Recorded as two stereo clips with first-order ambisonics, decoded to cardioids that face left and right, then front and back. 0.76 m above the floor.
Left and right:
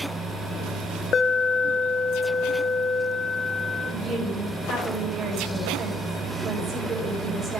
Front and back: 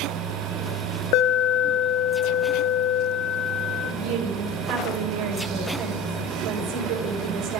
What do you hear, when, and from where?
1.1 s an alarm: 25° left, 0.5 m
3.8 s a woman speaking: 160° right, 3.5 m